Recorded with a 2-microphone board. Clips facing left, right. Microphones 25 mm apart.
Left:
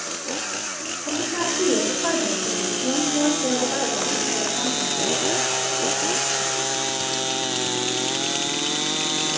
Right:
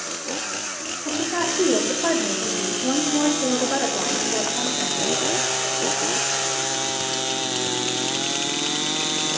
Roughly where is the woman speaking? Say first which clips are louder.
Right 1 dB; right.